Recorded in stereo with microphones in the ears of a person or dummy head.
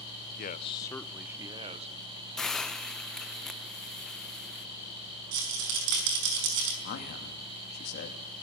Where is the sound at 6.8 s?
50° left (ahead or behind), 2.5 m.